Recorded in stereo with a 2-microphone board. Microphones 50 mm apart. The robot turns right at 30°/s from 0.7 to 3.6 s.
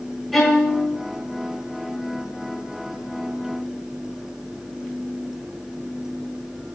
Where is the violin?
Centre (ahead or behind), 4.5 m; by 0.9 s 5° left (ahead or behind), 4.5 m.